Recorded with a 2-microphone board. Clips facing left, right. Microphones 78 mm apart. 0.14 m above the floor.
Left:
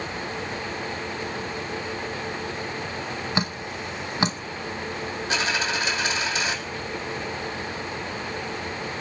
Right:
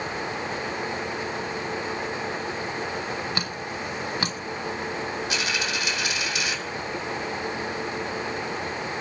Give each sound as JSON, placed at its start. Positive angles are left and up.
{"t": 3.4, "sound": "dripping", "side_deg": 25, "distance_m": 0.7}
{"t": 5.3, "sound": "a dropped coin", "side_deg": 35, "distance_m": 2.0}